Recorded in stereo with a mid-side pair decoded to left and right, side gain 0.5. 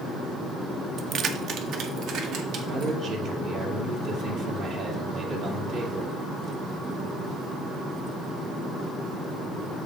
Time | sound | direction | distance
1.0 | keys jangling | 50° right | 0.6 m
2.7 | a man speaking | 70° right | 2 m